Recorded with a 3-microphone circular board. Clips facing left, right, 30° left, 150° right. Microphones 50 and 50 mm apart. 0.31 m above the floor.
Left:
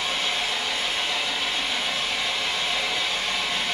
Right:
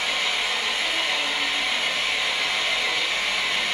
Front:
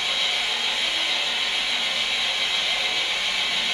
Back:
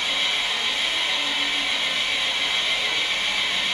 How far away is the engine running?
About 5 m.